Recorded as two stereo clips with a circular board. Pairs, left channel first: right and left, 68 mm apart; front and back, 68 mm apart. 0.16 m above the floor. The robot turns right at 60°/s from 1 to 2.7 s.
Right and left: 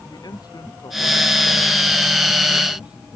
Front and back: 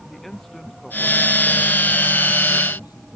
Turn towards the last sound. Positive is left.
turn(degrees=15)